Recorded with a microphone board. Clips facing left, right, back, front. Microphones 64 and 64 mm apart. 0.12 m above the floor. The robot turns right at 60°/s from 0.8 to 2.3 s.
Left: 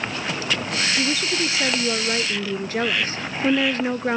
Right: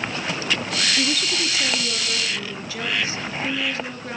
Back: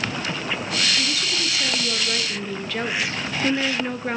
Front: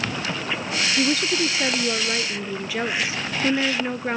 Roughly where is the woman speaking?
Ahead.